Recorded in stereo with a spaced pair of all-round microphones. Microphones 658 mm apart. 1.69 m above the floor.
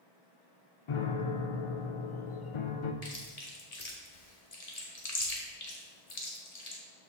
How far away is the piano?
About 0.6 m.